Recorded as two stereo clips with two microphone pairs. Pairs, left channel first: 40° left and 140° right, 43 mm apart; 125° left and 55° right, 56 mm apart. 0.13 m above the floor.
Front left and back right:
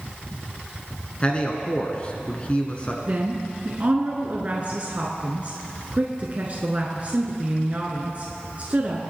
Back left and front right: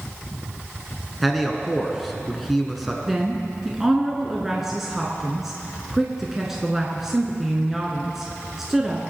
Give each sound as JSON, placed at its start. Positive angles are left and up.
{"t": 1.2, "sound": "a man speaking", "azimuth_deg": 35, "distance_m": 1.4}
{"t": 3.1, "sound": "a woman speaking", "azimuth_deg": -130, "distance_m": 1.3}